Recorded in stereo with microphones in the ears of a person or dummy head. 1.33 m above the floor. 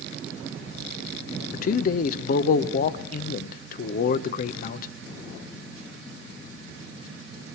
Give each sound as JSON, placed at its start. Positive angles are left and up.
{"t": 1.5, "sound": "a man speaking", "side_deg": 50, "distance_m": 0.5}